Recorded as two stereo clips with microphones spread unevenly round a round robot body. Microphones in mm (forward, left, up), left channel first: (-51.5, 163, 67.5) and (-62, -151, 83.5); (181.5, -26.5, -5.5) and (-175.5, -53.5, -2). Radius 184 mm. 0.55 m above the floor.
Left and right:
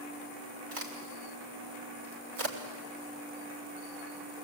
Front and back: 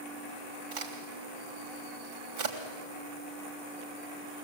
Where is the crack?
135° right, 3 m.